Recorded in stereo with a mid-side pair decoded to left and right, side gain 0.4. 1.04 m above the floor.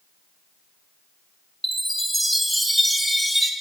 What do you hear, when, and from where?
1.6 s a chime: 5° right, 1.1 m